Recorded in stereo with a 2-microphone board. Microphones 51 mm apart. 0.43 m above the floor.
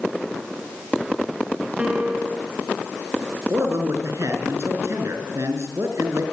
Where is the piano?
20° right (ahead or behind), 3.5 m.